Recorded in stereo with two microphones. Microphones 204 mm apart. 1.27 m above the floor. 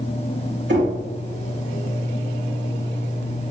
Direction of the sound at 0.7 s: 60° right (ahead or behind).